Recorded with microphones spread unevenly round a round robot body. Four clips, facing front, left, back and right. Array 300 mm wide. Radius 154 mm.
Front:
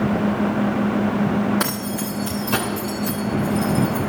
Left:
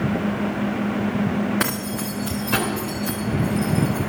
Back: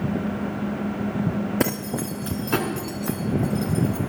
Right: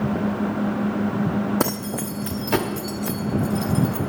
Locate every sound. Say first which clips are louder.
1.6 s keys jangling: right 1 dB, even; 150° right, 0.7 m; by 4.0 s 105° right, 2.5 m